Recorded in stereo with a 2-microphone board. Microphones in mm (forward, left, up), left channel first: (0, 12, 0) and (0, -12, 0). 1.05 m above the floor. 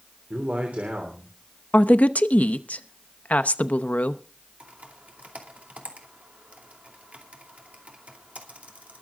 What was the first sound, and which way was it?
A man speaking, 75° right (ahead or behind).